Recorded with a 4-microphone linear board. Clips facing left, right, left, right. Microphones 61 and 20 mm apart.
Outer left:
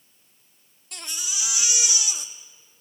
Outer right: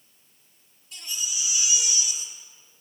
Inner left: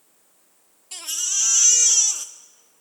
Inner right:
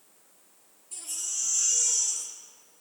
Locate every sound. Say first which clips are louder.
0.9 s a baby crying: outer left 1 dB, inner left 10 dB; 70° left (ahead or behind), 1.0 m